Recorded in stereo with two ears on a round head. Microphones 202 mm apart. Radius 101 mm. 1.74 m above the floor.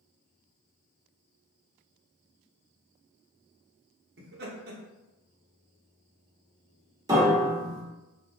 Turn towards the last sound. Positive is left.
turn(degrees=-15)  # may be behind; listen again after turning